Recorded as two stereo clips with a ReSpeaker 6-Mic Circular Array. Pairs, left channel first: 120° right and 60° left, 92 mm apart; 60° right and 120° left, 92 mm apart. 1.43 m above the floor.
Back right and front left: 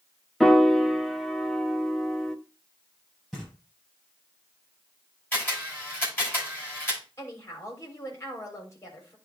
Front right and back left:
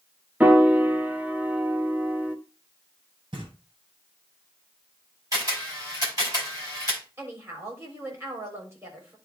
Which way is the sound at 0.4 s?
160° left.